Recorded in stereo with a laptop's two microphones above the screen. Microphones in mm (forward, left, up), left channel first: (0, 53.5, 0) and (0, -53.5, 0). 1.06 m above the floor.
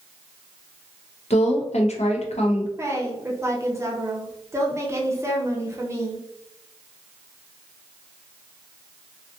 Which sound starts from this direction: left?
A woman speaking, at 1.3 s.